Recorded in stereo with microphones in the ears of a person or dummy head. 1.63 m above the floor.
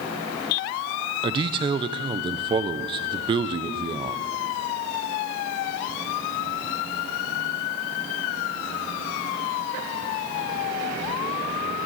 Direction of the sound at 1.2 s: 30° right (ahead or behind).